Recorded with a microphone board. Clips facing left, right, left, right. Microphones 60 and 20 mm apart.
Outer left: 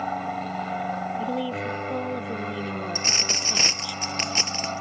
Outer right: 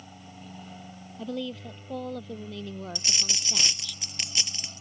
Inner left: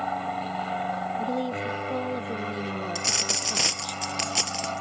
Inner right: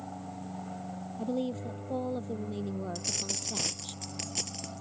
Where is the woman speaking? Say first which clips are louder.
Outer left 7 dB, inner left 5 dB; 15° left (ahead or behind).